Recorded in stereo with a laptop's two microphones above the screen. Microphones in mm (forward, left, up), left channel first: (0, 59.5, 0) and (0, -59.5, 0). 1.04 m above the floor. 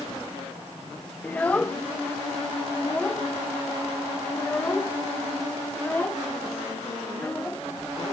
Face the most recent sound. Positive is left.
turn(degrees=15)  # may be behind; listen again after turning